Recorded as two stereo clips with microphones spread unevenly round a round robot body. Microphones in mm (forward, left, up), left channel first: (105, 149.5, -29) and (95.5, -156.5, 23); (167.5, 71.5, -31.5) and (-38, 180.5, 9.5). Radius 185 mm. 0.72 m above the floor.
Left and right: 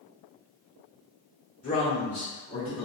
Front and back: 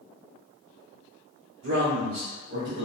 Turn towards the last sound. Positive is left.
turn(degrees=175)